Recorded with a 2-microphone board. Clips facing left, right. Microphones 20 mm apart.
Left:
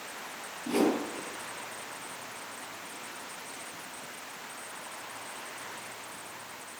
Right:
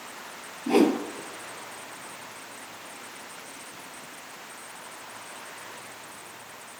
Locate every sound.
0.7 s a whoosh: 65° right (ahead or behind), 2.5 m